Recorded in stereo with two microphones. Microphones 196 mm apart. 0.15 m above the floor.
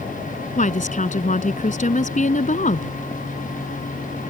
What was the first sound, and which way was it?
A woman speaking, 40° left (ahead or behind).